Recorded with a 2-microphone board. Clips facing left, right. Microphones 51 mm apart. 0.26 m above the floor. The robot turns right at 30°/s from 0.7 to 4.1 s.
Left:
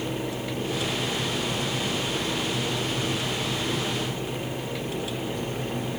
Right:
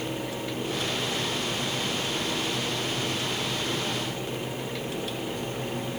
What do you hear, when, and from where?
Only background noise.